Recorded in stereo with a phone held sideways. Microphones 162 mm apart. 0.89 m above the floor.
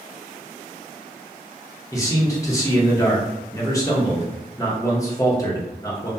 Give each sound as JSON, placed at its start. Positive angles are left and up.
{"t": 1.9, "sound": "a man speaking", "side_deg": 20, "distance_m": 0.8}